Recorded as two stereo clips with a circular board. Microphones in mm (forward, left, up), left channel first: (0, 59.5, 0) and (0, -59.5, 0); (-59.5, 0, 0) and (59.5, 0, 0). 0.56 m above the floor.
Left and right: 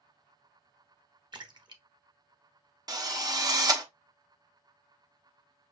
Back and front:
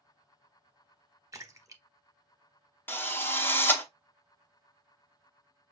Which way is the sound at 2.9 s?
120° right.